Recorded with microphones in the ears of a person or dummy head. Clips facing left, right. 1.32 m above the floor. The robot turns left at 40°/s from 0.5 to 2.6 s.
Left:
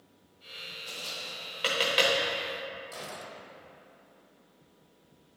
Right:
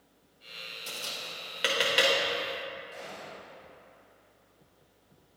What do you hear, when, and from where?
0.9 s tapping: 50° right (ahead or behind), 1.2 m; by 2.1 s 5° right (ahead or behind), 1.2 m
2.9 s a gunshot: 65° left (ahead or behind), 0.8 m